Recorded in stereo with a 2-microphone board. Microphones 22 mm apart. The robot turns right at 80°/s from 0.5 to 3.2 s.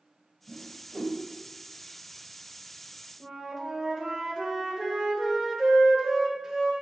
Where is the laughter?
I don't hear laughter.